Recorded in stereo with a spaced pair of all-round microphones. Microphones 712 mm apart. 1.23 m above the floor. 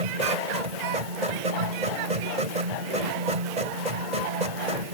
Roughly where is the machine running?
Right.